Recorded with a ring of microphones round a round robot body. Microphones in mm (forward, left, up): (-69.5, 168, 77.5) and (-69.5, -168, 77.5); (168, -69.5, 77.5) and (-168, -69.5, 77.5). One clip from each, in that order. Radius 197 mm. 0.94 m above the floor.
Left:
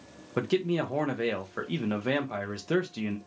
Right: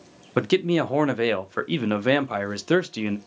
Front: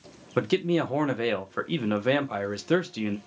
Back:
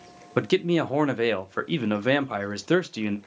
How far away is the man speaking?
About 0.5 m.